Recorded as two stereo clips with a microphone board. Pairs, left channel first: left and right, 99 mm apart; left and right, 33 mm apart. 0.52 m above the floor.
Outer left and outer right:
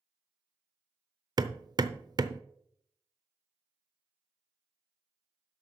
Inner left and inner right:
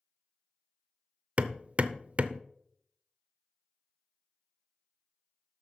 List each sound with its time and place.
1.4 s hammering: 40° right (ahead or behind), 0.6 m